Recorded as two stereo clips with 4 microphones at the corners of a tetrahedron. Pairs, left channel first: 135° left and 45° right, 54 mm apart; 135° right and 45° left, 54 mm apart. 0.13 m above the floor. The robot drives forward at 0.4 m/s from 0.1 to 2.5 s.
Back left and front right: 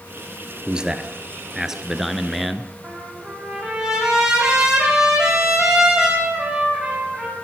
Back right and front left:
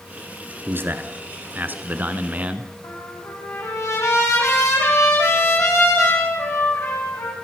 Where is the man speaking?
20° left, 1.6 m; by 2.7 s 50° left, 1.2 m.